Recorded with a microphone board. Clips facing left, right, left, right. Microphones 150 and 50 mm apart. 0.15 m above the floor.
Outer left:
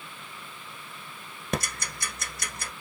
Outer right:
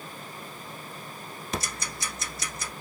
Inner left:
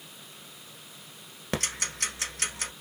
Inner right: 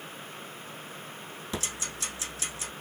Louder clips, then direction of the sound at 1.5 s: Outer left 3 dB, inner left 5 dB; 60° left (ahead or behind).